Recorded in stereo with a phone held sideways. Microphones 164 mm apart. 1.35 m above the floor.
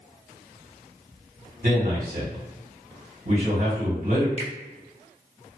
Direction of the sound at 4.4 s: 45° right (ahead or behind).